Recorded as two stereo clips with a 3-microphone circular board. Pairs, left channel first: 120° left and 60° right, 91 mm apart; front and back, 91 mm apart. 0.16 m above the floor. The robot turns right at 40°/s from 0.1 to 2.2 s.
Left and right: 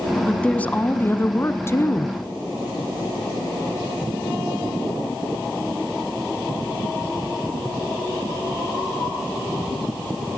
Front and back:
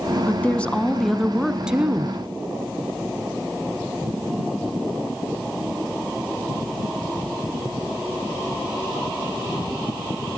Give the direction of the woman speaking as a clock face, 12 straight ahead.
10 o'clock.